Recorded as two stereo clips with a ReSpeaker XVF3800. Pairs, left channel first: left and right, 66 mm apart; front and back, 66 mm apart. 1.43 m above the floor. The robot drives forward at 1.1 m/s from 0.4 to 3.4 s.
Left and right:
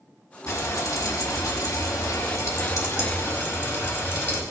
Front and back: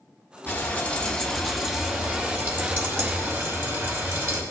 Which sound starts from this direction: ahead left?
Frying, at 0.5 s.